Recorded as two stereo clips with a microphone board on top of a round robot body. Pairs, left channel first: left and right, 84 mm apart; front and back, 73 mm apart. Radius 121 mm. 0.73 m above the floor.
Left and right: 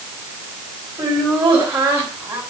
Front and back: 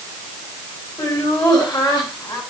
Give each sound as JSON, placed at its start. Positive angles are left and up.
{"t": 1.0, "sound": "laughter", "azimuth_deg": -35, "distance_m": 7.0}